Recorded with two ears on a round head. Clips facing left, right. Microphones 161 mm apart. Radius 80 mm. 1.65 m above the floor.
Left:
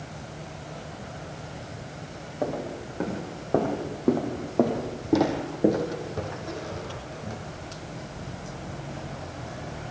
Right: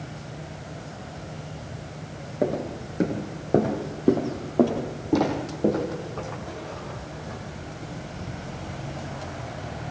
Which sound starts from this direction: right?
Footsteps, at 2.4 s.